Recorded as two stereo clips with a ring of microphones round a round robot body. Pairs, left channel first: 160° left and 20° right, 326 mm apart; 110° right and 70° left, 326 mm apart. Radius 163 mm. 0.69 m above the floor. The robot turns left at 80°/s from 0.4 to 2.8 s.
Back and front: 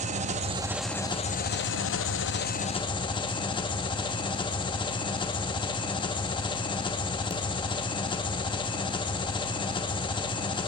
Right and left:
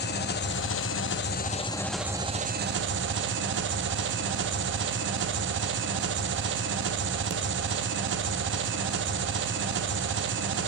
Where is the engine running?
75° right, 0.7 m; by 10.7 s 90° left, 0.7 m.